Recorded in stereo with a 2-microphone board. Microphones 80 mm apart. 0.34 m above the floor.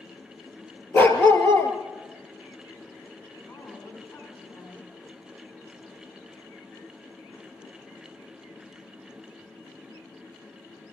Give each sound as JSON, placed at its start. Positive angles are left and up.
{"t": 0.9, "sound": "a dog barking", "side_deg": 25, "distance_m": 2.5}
{"t": 3.5, "sound": "a woman speaking", "side_deg": 40, "distance_m": 3.5}